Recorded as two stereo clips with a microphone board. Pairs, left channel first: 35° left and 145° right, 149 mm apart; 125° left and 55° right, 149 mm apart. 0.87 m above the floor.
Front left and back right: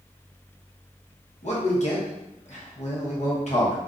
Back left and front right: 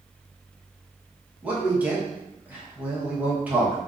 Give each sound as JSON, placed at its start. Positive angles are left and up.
{"t": 1.4, "sound": "a man speaking", "azimuth_deg": 20, "distance_m": 1.0}